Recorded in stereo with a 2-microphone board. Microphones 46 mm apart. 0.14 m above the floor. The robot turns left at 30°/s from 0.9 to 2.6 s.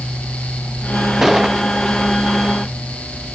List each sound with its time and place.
1.2 s a gunshot: 5° right (ahead or behind); by 1.6 s 20° right (ahead or behind)